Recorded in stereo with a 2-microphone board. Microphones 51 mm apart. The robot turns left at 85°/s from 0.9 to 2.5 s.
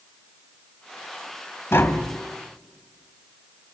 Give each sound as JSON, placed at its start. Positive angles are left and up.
{"t": 1.7, "sound": "tapping", "azimuth_deg": 60, "distance_m": 1.1}